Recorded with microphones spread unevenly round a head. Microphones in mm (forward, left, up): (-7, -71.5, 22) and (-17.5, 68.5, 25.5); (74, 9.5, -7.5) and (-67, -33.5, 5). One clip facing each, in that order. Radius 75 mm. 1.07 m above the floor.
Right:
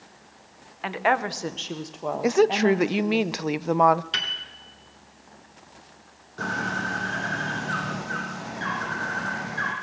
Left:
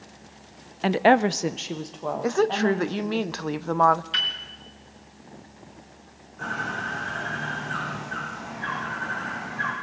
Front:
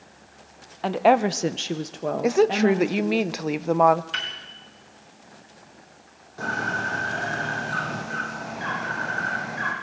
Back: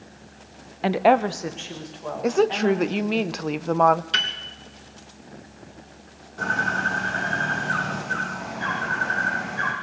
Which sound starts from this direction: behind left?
A woman speaking, at 0.8 s.